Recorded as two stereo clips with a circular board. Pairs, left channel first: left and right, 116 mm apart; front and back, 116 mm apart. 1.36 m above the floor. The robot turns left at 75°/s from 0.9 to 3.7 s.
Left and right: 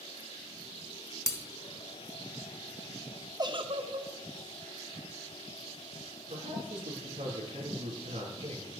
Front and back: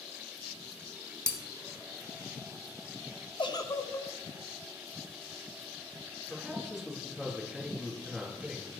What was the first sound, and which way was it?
Breaking glass, 40° left.